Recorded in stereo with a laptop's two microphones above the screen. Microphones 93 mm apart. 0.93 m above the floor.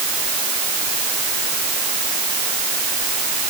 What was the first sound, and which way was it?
Only background noise.